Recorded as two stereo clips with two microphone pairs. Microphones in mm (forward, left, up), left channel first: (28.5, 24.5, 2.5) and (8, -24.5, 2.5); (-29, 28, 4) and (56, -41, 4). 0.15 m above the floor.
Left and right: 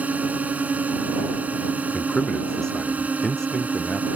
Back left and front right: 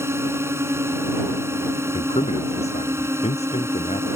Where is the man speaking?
145° left.